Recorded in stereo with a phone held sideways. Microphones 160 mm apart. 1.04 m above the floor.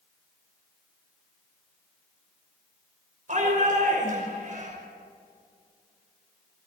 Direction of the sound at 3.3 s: 55° right (ahead or behind).